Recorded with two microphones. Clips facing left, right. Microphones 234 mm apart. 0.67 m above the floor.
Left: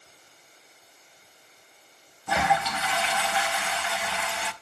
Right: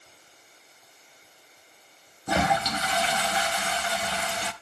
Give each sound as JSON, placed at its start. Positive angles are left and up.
{"t": 2.3, "sound": "a toilet flushing", "side_deg": -40, "distance_m": 0.6}